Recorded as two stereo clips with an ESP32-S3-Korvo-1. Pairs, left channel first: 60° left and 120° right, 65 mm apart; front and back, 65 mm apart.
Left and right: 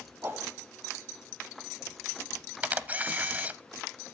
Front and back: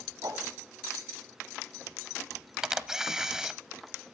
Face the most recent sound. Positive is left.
turn(degrees=-110)